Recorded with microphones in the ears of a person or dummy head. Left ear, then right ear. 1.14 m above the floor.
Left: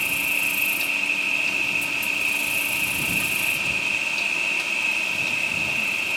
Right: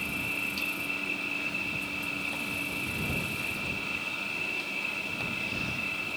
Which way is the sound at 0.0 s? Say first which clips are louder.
Left 9 dB; 50° left (ahead or behind).